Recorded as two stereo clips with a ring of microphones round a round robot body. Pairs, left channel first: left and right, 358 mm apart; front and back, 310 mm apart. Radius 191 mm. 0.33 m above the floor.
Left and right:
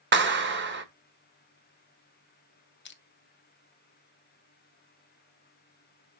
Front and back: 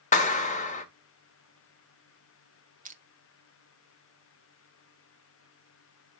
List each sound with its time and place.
0.1 s a clap: 50° right, 1.5 m
2.9 s crushing: 130° left, 1.2 m